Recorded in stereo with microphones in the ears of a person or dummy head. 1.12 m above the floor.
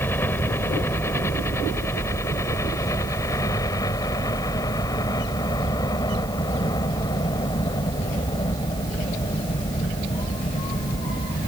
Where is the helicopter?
10° left (ahead or behind); by 11.5 s 20° left (ahead or behind).